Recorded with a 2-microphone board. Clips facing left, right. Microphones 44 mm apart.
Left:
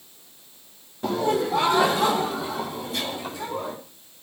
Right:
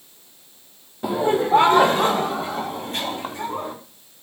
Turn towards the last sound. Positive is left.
turn(degrees=-50)  # may be behind; listen again after turning